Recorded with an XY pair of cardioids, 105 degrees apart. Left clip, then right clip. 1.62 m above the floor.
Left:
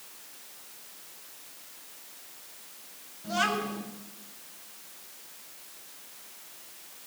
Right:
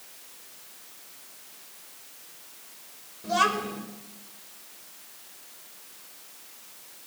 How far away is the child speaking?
About 3 m.